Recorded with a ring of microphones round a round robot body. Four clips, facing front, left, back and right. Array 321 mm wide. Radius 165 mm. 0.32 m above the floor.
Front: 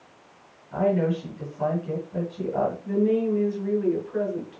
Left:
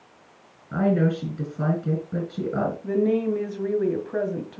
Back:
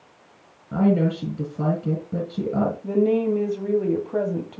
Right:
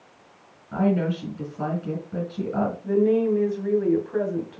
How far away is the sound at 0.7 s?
About 6 m.